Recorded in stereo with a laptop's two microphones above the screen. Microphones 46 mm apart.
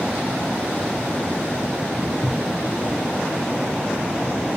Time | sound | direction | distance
2.0 | footsteps | 60° left (ahead or behind) | 1.7 m